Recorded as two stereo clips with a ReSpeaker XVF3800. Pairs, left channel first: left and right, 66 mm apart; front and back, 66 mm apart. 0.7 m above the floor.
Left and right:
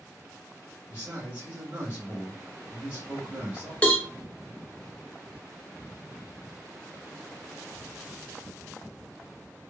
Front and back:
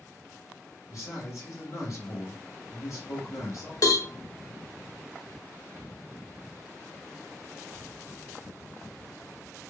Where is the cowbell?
20° left, 0.7 m.